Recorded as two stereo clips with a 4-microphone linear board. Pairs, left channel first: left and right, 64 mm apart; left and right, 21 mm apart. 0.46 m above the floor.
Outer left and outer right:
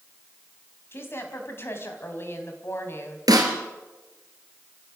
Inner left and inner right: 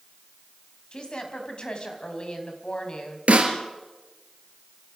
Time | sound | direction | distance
0.9 | a woman speaking | 40° left (ahead or behind) | 3.5 m
3.3 | a snare drum | 85° right | 3 m